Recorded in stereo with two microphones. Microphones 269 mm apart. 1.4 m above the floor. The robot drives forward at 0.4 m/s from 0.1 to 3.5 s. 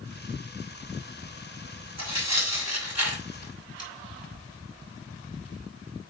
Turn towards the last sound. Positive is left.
turn(degrees=-70)  # may be behind; listen again after turning